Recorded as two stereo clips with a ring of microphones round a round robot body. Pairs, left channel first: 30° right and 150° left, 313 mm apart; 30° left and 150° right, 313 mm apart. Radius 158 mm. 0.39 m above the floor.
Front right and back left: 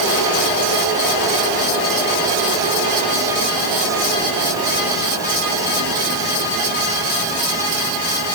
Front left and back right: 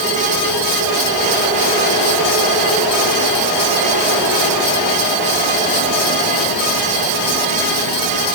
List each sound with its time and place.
Only background noise.